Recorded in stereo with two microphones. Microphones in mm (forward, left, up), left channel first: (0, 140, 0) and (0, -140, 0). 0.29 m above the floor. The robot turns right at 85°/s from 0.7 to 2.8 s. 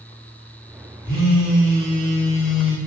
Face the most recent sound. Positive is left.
turn(degrees=-160)